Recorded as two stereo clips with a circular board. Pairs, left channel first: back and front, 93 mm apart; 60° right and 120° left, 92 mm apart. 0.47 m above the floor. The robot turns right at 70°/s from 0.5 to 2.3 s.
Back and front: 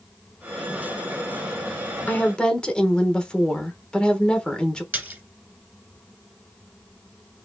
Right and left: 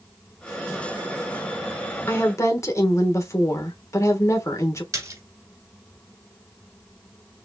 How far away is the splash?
About 1.9 m.